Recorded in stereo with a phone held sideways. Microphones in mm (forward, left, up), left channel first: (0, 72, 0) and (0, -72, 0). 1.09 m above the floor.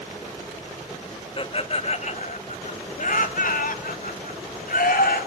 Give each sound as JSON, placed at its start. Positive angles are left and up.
{"t": 1.4, "sound": "laughter", "side_deg": 35, "distance_m": 1.5}